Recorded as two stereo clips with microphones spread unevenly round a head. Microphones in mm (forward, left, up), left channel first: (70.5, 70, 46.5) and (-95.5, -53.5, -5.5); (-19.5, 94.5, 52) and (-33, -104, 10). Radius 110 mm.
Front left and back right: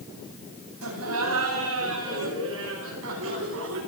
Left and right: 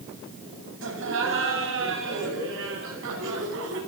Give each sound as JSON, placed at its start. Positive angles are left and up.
{"t": 0.8, "sound": "laughter", "azimuth_deg": -120, "distance_m": 9.5}